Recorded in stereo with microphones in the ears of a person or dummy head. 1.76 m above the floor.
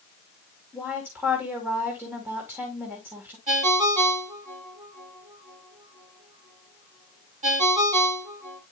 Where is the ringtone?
40° right (ahead or behind), 2.0 m.